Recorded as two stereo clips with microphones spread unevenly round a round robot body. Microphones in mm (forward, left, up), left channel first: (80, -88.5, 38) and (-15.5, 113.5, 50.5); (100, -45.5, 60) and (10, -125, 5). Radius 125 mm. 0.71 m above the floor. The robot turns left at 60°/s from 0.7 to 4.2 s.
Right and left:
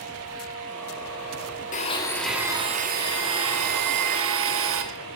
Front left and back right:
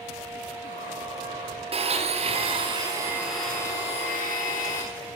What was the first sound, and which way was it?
A blender, 120° right.